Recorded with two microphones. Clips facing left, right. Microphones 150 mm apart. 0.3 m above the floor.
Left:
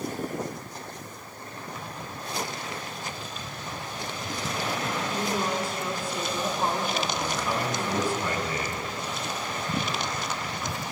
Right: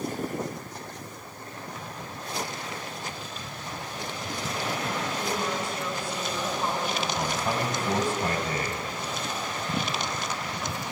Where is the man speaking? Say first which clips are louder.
Right 1 dB; 60° right (ahead or behind), 2.5 m.